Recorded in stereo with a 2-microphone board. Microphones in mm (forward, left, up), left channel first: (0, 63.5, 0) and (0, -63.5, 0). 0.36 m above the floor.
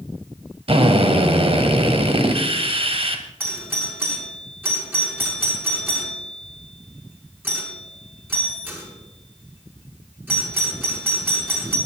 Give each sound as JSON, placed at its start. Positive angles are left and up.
{"t": 0.7, "sound": "a drill", "side_deg": -50, "distance_m": 2.0}
{"t": 3.4, "sound": "a doorbell", "side_deg": -15, "distance_m": 5.0}